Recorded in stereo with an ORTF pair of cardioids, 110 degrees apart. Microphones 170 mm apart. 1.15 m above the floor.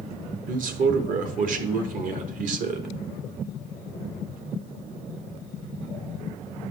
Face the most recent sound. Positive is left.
turn(degrees=-55)